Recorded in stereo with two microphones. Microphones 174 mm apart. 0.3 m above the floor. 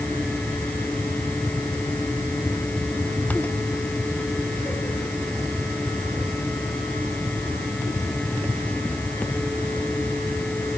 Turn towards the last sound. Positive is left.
No sound to turn to.